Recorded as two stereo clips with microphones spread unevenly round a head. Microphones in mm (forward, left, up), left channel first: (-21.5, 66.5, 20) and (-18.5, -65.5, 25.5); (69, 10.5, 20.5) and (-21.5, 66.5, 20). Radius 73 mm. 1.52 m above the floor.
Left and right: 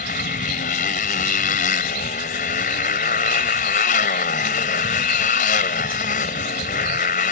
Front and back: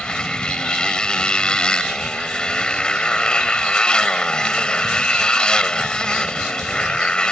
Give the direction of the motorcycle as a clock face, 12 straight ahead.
10 o'clock.